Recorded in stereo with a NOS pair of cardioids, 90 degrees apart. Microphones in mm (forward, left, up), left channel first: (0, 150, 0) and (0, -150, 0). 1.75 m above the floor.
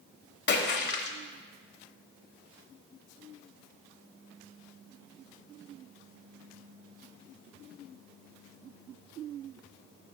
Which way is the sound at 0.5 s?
35° left.